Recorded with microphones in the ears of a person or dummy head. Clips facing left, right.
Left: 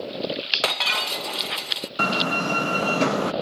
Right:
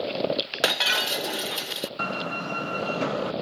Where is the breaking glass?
15° right (ahead or behind).